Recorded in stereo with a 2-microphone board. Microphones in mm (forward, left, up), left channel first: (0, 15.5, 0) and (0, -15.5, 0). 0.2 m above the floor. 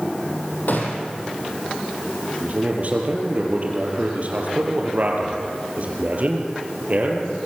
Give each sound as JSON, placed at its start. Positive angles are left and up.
{"t": 0.7, "sound": "a gunshot", "side_deg": 70, "distance_m": 4.0}
{"t": 2.4, "sound": "a man speaking", "side_deg": -50, "distance_m": 4.0}